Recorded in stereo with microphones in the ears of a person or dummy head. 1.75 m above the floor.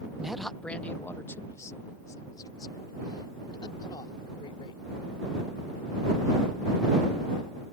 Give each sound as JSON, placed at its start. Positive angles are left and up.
{"t": 0.2, "sound": "a man speaking", "side_deg": -5}